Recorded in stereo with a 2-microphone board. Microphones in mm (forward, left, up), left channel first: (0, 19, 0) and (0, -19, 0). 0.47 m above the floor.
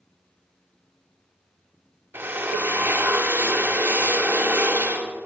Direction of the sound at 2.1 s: 60° right (ahead or behind).